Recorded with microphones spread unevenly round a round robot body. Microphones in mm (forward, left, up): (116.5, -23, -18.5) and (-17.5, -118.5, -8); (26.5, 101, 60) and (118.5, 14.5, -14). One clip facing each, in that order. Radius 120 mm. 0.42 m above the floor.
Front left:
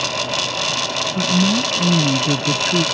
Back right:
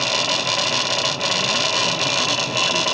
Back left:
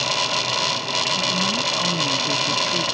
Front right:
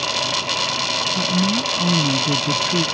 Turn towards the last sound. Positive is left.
turn(degrees=0)